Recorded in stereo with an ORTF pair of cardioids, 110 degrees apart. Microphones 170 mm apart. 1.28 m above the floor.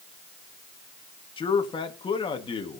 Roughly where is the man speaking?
Ahead left.